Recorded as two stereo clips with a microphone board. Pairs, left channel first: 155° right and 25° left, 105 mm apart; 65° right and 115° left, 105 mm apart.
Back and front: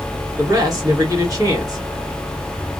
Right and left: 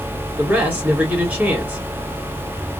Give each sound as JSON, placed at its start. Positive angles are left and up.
{"t": 0.4, "sound": "a man speaking", "azimuth_deg": 50, "distance_m": 2.0}